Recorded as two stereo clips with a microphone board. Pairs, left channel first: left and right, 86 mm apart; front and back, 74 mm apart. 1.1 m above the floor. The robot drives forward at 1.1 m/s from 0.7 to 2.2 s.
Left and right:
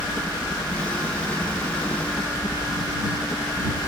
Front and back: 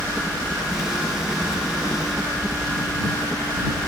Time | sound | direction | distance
0.0 | a helicopter | 60° left | ?